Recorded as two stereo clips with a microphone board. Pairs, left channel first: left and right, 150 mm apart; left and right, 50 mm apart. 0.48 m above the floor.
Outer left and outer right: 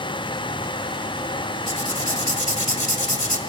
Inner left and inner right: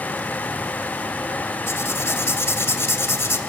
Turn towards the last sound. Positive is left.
turn(degrees=60)  # may be behind; listen again after turning